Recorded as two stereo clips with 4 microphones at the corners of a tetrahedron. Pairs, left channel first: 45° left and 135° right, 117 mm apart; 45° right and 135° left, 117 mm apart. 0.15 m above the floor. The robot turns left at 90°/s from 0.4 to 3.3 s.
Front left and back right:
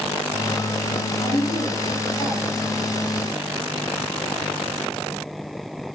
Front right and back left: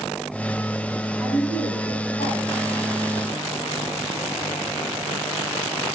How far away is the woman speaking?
About 9.5 m.